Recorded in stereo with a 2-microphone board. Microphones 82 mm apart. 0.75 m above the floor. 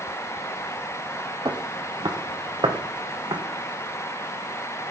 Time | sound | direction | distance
1.4 | footsteps | 60° right (ahead or behind) | 1.5 m